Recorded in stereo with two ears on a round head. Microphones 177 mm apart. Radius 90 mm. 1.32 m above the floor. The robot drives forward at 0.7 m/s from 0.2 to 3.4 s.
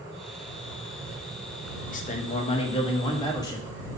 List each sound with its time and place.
1.9 s a man speaking: 45° left (ahead or behind), 1.0 m; by 4.0 s 20° left (ahead or behind), 1.9 m